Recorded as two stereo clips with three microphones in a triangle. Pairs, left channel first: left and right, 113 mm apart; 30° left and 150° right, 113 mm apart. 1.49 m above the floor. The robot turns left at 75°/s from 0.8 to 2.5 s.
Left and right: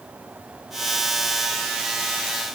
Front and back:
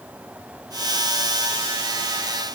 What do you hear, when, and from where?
Only background noise.